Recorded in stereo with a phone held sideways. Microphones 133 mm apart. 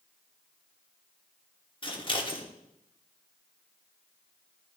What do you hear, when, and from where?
1.8 s scissors: 35° left (ahead or behind), 1.3 m